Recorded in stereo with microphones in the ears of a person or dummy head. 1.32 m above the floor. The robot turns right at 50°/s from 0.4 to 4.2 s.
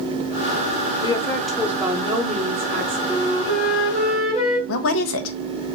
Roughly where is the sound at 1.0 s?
Behind left.